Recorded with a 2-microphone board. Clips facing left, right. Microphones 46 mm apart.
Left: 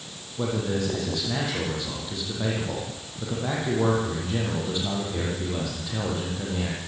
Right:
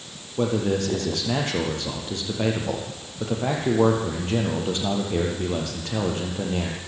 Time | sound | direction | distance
0.4 | a man speaking | 70° right (ahead or behind) | 6.5 m